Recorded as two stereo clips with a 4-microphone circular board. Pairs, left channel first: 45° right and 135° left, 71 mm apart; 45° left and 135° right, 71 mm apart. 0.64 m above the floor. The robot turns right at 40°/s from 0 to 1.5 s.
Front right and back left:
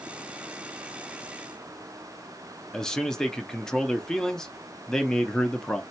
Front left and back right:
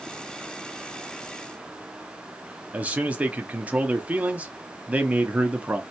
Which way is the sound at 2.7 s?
110° right.